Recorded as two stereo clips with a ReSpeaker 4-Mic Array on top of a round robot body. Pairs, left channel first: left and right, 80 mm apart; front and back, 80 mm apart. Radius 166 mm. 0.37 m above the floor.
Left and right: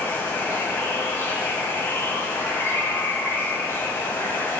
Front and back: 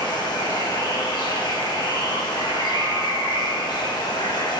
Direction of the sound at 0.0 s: 25° left.